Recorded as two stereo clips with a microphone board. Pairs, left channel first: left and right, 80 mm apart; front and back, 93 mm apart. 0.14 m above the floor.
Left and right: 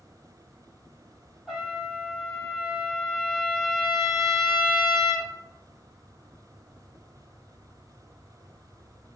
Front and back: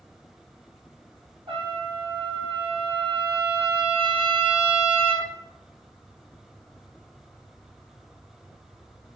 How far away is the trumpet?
About 0.8 m.